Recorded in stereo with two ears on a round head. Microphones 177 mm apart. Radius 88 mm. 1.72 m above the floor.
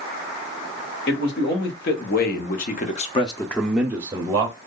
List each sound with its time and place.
1.1 s a man speaking: 55° left (ahead or behind), 1.4 m; by 4.6 s 30° right (ahead or behind), 0.8 m